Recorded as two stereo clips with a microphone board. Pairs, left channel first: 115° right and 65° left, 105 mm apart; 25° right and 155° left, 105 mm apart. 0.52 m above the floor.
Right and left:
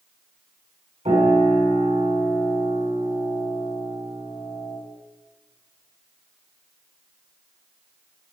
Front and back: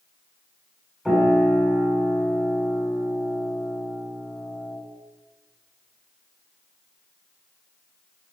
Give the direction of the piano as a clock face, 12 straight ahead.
10 o'clock.